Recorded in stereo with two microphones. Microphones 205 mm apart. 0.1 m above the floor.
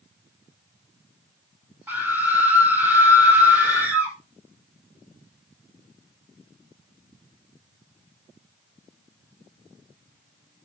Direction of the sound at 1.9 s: 10° right (ahead or behind).